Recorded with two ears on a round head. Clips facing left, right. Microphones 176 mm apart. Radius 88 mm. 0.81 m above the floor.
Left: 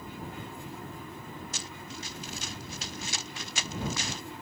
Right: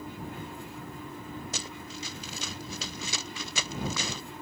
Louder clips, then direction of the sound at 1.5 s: Right 2 dB; 65° right (ahead or behind).